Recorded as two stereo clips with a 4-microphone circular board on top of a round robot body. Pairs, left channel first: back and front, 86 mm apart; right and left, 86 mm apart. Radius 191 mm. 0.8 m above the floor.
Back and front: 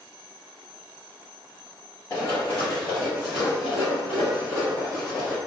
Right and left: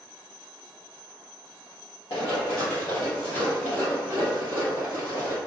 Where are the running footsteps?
130° right, 1.3 m; by 5.4 s 135° left, 1.4 m.